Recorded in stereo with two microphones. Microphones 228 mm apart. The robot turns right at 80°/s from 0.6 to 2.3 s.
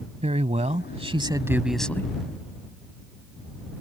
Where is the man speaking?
30° right (ahead or behind); by 2.1 s 15° left (ahead or behind).